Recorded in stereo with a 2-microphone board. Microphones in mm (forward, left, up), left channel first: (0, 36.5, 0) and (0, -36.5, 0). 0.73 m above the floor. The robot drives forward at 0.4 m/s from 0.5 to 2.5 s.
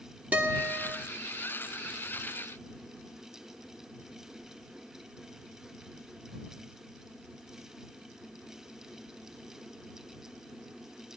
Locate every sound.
0.3 s a guitar: 20° right (ahead or behind), 2 m; by 1.0 s 15° right (ahead or behind), 2.5 m